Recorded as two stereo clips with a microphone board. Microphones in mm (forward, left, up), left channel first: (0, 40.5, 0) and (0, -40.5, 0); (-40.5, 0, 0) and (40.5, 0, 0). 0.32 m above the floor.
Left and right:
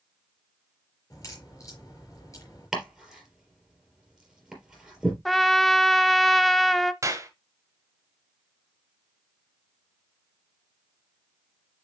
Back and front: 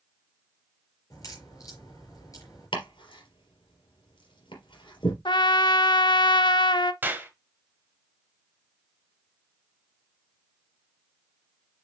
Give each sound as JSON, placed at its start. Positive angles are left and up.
{"t": 1.1, "sound": "a crack", "azimuth_deg": 135, "distance_m": 4.5}
{"t": 2.7, "sound": "chopping", "azimuth_deg": -175, "distance_m": 4.0}
{"t": 5.2, "sound": "a trumpet", "azimuth_deg": 180, "distance_m": 0.5}
{"t": 7.0, "sound": "a clap", "azimuth_deg": -60, "distance_m": 1.4}